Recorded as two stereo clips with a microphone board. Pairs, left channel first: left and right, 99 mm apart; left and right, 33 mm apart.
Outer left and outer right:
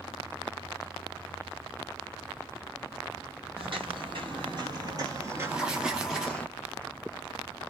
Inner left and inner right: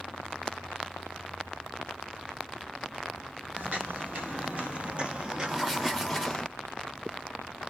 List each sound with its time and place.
3.6 s footsteps: 60° right (ahead or behind), 1.9 m; by 6.5 s 15° left (ahead or behind), 1.0 m
5.5 s writing: 10° right (ahead or behind), 0.8 m